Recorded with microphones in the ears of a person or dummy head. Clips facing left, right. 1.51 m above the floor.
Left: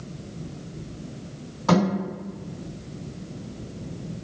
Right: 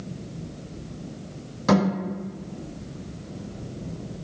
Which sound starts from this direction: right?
A thud, at 1.7 s.